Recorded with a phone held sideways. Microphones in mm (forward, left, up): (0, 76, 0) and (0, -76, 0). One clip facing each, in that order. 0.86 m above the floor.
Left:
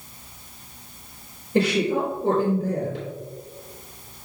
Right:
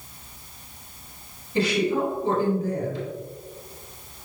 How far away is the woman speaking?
About 3.5 m.